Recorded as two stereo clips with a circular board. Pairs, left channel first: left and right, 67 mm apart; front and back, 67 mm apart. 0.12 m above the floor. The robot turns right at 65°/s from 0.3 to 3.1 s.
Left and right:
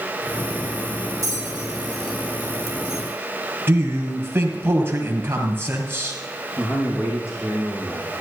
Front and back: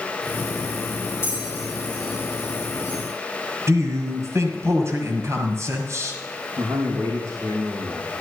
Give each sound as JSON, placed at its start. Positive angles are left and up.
{"t": 1.2, "sound": "a bell", "azimuth_deg": -50, "distance_m": 4.5}
{"t": 3.7, "sound": "a man speaking", "azimuth_deg": -145, "distance_m": 2.5}
{"t": 6.6, "sound": "a man speaking", "azimuth_deg": 140, "distance_m": 5.5}